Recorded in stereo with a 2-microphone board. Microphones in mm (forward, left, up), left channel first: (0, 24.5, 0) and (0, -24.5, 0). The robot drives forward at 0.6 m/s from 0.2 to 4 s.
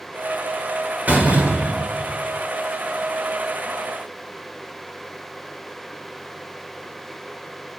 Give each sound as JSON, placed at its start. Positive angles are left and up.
{"t": 1.1, "sound": "a door slam", "side_deg": -30, "distance_m": 1.4}